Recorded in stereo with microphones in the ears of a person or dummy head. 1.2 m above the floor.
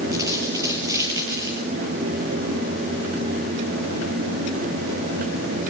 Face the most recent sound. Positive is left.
turn(degrees=-15)  # may be behind; listen again after turning